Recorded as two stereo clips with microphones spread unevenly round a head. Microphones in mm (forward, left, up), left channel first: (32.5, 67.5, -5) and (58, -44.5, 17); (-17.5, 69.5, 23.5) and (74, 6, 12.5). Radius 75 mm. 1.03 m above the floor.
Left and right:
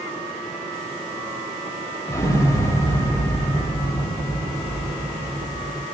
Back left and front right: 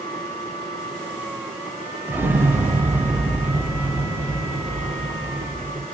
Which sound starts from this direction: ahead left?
An explosion, at 2.1 s.